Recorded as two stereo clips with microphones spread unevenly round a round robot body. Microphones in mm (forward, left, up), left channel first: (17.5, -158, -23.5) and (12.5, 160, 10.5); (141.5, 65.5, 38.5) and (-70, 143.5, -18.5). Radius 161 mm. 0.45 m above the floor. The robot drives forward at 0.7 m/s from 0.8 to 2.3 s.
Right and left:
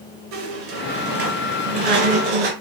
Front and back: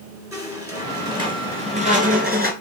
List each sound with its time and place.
0.3 s a squeak: 80° left, 2 m; by 2.5 s 105° left, 2.5 m